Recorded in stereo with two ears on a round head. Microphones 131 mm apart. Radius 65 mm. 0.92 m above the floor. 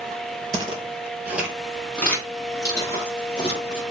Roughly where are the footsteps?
Right.